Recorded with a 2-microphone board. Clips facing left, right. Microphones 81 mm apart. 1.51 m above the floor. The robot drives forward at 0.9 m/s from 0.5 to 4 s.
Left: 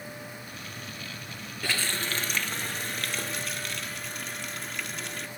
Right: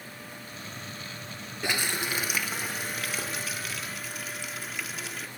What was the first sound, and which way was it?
A running tap, 15° right (ahead or behind).